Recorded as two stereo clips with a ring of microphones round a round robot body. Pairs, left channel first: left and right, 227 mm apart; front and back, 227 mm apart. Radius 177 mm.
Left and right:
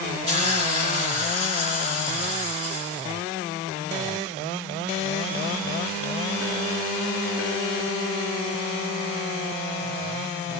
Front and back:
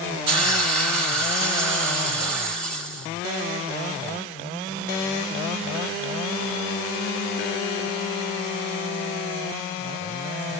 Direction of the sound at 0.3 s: 160° right.